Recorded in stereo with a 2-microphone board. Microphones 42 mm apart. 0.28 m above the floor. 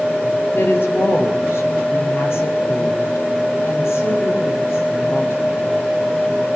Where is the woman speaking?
70° left (ahead or behind), 6 m; by 5.9 s 85° left, 9.5 m.